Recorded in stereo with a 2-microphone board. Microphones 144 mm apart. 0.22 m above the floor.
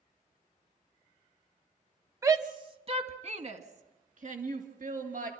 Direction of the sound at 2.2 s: 20° right (ahead or behind).